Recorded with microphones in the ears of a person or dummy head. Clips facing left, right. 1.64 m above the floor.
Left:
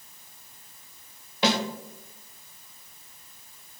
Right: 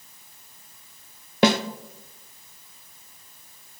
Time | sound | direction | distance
1.4 | a snare drum | 55° right (ahead or behind) | 0.9 m